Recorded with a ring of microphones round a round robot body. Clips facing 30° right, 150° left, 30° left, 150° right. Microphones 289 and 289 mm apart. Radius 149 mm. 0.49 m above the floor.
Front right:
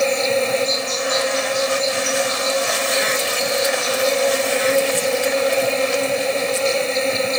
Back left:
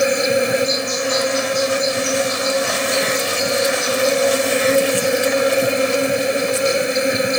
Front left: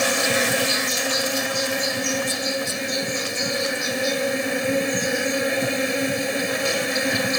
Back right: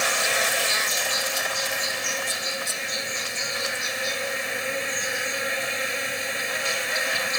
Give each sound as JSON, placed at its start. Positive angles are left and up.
{"t": 0.0, "sound": "an insect", "azimuth_deg": 75}